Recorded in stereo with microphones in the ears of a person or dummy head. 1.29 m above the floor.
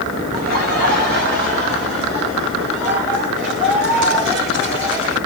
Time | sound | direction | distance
0.3 | laughter | 50° right (ahead or behind) | 2.5 m